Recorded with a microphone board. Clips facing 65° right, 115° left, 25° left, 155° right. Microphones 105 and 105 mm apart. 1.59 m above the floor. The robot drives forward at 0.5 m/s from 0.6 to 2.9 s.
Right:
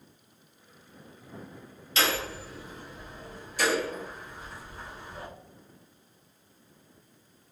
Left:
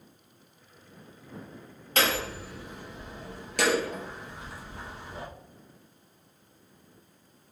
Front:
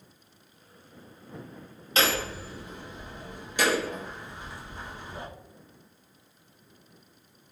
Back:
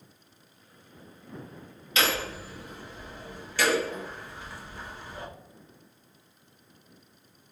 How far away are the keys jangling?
No keys jangling in this recording.